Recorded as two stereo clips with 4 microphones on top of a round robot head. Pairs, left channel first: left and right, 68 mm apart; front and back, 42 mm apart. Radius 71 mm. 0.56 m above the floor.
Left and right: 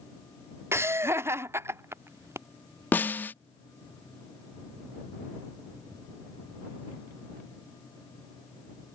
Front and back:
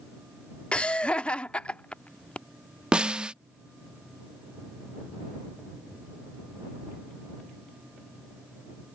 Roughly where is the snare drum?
Behind left.